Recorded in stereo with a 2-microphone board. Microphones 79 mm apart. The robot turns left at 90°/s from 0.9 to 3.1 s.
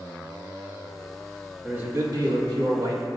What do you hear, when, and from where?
1.6 s a man speaking: 15° right, 2 m; by 3.1 s 140° right, 2 m